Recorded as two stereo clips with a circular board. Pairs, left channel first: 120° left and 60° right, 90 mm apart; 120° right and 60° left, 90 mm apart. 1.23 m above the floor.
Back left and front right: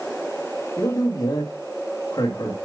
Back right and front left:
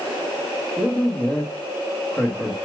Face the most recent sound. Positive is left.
turn(degrees=165)